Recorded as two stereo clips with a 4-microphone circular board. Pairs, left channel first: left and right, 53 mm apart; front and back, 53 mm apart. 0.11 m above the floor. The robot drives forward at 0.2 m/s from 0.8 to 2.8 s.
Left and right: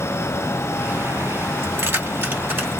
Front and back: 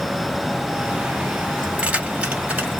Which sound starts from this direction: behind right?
Keys jangling, at 1.6 s.